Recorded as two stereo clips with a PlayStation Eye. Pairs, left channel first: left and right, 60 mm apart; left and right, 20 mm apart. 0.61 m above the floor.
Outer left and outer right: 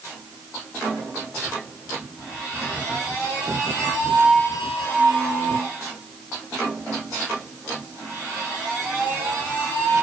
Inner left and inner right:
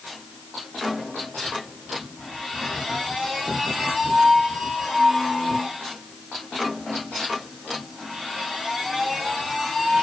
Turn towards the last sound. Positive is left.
No sound to turn to.